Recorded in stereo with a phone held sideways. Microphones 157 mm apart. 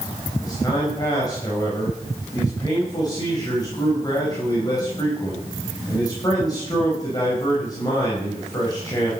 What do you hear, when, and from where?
0.4 s a man speaking: 25° left (ahead or behind), 5 m